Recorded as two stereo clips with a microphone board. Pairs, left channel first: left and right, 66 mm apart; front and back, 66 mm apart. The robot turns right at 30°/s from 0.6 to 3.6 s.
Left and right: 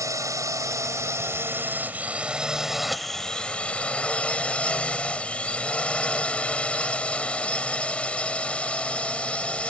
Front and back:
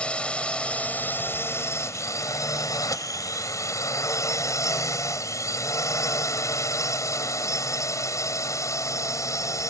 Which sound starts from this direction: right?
A drone, at 0.0 s.